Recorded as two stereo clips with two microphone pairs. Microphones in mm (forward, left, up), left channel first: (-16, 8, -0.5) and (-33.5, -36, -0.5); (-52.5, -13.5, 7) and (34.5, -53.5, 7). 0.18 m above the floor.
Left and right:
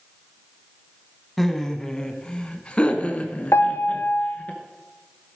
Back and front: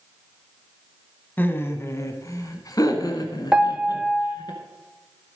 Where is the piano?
55° left, 0.7 m.